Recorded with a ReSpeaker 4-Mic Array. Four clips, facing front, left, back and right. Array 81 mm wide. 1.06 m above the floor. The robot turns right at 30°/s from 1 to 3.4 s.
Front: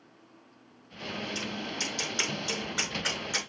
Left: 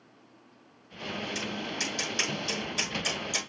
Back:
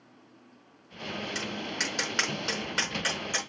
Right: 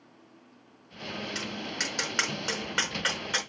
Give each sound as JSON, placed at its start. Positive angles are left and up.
{"t": 1.4, "sound": "tapping", "azimuth_deg": -150, "distance_m": 5.5}